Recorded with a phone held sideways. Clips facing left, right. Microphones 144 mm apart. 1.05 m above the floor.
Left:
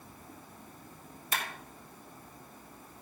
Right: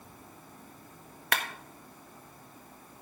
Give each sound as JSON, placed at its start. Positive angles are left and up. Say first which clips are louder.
{"t": 1.3, "sound": "a clap", "louder": "right 4 dB", "side_deg": -65, "distance_m": 1.4}